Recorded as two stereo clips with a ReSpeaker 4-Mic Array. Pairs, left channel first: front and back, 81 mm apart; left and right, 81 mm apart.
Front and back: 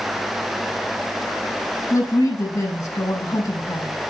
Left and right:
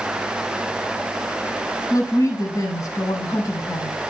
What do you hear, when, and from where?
1.9 s a woman speaking: 45° left, 8 m